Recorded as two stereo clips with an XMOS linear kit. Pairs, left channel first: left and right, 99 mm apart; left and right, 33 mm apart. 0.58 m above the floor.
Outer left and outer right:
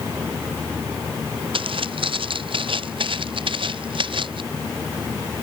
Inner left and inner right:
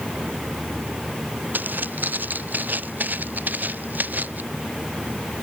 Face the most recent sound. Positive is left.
turn(degrees=-60)  # may be behind; listen again after turning